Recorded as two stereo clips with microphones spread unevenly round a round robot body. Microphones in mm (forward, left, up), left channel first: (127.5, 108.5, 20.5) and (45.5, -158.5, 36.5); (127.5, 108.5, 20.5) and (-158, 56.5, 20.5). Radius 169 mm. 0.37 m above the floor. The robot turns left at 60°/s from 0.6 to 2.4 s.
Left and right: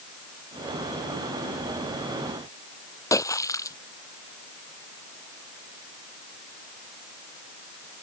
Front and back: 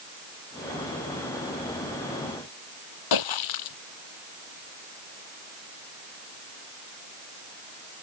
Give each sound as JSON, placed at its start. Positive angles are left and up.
{"t": 3.1, "sound": "a splash", "azimuth_deg": -5}